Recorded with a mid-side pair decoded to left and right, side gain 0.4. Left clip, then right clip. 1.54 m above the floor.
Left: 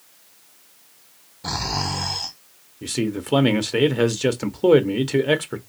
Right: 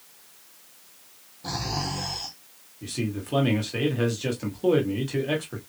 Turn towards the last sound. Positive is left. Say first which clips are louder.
# left 6 dB
turn(degrees=65)